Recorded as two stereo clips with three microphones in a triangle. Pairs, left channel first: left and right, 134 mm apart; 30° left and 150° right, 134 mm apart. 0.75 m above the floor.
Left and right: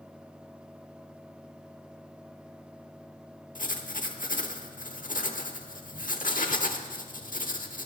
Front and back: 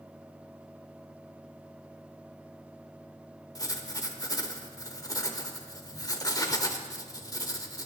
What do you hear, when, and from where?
3.5 s writing: 90° left, 1.0 m